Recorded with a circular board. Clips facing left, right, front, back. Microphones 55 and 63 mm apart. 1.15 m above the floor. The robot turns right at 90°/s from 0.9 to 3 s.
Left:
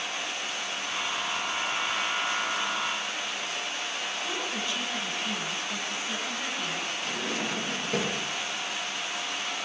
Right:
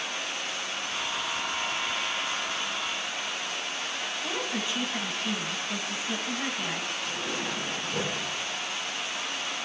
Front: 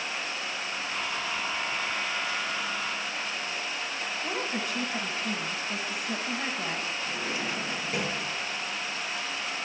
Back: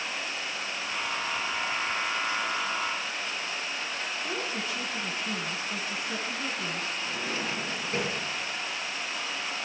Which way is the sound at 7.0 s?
80° left.